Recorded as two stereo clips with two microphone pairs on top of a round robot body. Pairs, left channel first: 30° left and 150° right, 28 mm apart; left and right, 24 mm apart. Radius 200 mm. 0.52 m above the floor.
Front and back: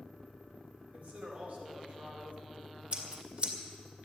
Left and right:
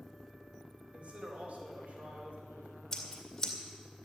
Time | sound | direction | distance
0.9 | a man speaking | 110° right | 4 m
2.9 | scissors | 165° left | 2.5 m